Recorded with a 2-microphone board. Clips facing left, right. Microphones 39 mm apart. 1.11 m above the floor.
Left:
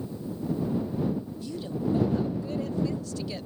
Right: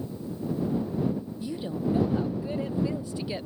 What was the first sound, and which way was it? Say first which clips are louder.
A woman speaking: right 1 dB; 20° right (ahead or behind).